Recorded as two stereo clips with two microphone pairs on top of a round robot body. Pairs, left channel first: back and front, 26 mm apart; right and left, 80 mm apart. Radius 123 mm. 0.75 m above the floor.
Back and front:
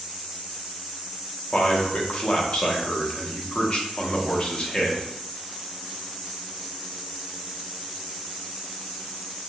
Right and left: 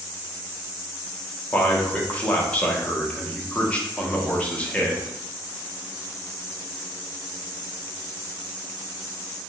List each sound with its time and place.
1.5 s a man speaking: 155° right, 0.9 m